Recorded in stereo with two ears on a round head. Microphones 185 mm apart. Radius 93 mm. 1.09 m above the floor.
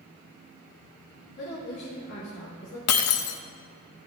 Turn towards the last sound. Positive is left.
turn(degrees=80)